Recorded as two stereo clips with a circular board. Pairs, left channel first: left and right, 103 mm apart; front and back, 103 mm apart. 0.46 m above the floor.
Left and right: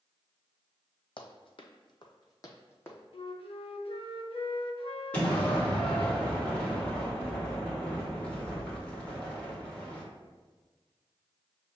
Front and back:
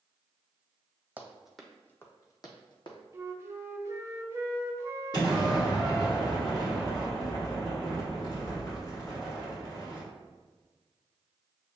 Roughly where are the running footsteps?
Left.